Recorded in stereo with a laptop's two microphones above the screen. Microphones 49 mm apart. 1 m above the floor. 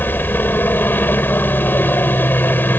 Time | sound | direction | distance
0.0 | a helicopter | 40° left (ahead or behind) | ?